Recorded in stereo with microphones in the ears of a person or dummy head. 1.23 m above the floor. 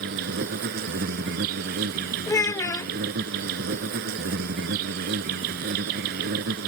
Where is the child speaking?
15° left (ahead or behind).